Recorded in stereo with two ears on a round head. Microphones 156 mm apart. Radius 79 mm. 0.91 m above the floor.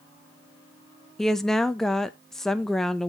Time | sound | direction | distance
1.2 | a woman speaking | 5° left (ahead or behind) | 0.5 m